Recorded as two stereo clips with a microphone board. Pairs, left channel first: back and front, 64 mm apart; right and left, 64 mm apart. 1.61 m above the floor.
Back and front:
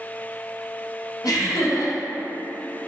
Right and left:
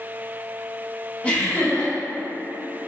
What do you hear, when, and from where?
1.2 s laughter: 160° right, 1.1 m